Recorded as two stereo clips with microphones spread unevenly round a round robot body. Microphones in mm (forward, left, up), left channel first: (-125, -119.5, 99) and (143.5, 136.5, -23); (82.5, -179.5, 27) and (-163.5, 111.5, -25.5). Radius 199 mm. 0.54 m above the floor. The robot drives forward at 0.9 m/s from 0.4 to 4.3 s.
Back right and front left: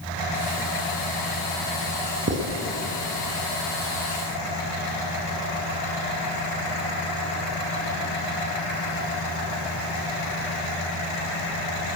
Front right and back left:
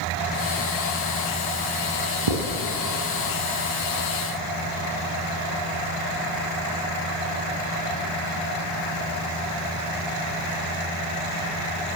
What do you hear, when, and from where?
2.3 s writing: 100° left, 3.5 m; by 2.5 s 105° left, 3.5 m